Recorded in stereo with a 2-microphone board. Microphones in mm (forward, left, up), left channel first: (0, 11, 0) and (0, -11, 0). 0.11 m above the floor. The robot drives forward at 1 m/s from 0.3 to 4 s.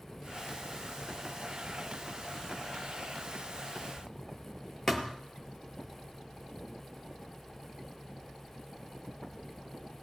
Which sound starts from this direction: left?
A thud, at 4.9 s.